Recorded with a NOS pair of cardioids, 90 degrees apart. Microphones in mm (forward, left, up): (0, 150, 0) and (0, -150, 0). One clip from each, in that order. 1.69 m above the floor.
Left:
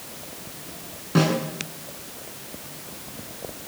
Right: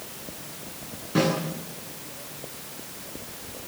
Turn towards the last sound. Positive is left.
turn(degrees=30)